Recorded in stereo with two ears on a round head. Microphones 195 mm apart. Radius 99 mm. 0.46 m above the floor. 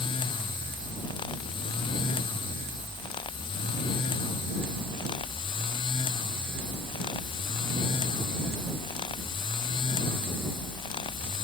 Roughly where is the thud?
No thud in this recording.